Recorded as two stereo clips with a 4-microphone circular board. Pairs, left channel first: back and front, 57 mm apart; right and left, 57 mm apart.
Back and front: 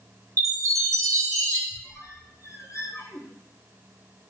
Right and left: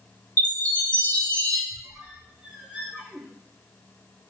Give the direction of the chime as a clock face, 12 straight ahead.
1 o'clock.